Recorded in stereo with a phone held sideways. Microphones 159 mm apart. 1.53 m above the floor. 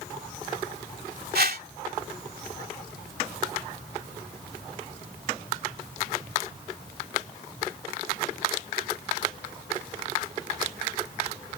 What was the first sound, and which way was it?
A whoosh, 75° right (ahead or behind).